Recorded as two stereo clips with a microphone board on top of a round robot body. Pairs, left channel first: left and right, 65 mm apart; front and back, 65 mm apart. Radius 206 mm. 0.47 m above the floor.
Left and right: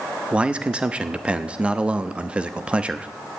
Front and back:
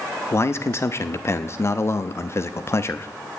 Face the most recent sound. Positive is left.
turn(degrees=-25)